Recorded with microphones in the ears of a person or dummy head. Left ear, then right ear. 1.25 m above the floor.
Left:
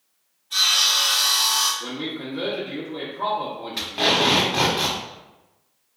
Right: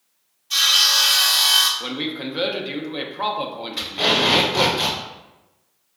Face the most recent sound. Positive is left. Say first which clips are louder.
# right 1 dB
turn(degrees=15)  # may be behind; listen again after turning